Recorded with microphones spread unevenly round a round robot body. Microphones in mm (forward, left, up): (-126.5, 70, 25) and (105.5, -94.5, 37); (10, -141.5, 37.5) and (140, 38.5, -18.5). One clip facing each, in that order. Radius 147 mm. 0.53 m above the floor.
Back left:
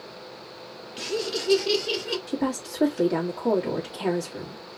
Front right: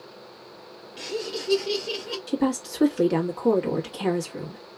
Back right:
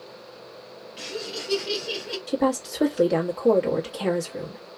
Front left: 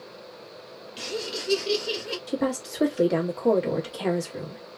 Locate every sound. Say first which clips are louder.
1.0 s laughter: back left 2 dB, front left 2 dB; 80° left, 1.2 m; by 2.2 s 100° left, 1.9 m
2.3 s a woman speaking: front right 5 dB, back right 4 dB; straight ahead, 1.3 m